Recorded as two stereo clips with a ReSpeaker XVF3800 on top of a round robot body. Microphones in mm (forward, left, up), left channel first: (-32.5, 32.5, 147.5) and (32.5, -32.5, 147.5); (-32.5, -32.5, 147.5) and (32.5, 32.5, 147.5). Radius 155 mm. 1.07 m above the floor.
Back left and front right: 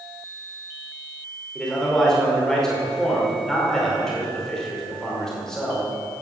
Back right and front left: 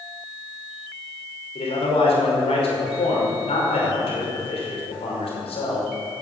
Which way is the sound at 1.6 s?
140° right.